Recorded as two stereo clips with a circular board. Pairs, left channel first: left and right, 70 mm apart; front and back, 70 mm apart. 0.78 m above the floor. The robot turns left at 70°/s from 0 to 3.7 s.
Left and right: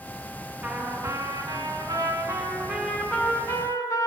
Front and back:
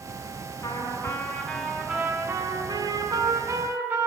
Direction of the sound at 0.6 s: 30° right.